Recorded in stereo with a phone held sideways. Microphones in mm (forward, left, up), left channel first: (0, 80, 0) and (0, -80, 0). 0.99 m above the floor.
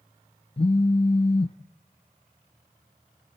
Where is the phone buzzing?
40° left (ahead or behind), 0.6 m.